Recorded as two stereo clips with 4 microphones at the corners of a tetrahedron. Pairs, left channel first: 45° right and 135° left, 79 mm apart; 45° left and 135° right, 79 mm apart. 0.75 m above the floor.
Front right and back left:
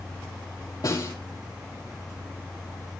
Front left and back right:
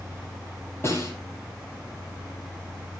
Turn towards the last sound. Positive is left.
turn(degrees=-10)